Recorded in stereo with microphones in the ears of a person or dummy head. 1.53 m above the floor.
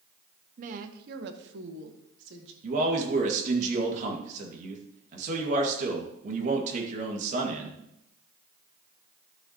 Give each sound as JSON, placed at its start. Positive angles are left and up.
{"t": 0.6, "sound": "a woman speaking", "side_deg": -45, "distance_m": 0.9}
{"t": 2.6, "sound": "a man speaking", "side_deg": -45, "distance_m": 1.9}